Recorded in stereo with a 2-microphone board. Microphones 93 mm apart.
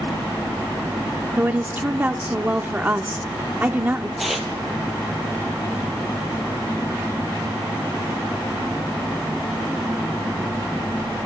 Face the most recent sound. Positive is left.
turn(degrees=0)  # may be behind; listen again after turning